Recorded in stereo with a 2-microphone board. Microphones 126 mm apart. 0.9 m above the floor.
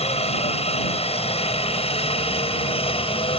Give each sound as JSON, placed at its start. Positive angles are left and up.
{"t": 0.0, "sound": "a helicopter", "side_deg": 55}